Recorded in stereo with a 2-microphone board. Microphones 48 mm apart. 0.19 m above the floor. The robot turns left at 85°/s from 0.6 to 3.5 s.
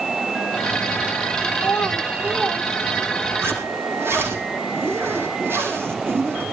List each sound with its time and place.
1.6 s a child speaking: 55° left, 7.5 m; by 2.7 s 40° right, 7.5 m
3.4 s a zipper: 60° right (ahead or behind), 6.5 m; by 6.4 s 55° right (ahead or behind), 6.5 m